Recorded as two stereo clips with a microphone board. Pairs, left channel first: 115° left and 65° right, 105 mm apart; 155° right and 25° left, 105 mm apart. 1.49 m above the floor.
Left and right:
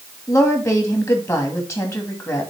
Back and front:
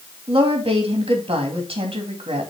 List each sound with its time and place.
0.3 s a woman speaking: 50° left, 2.5 m